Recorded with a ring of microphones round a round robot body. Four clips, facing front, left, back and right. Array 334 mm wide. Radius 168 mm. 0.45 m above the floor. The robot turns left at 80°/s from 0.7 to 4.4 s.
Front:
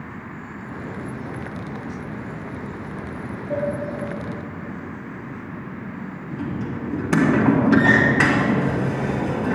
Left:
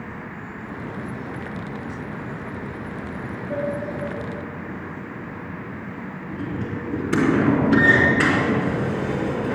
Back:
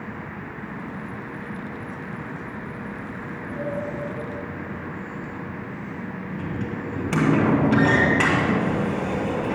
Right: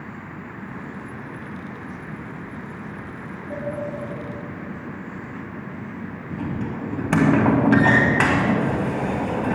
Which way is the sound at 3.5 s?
Straight ahead.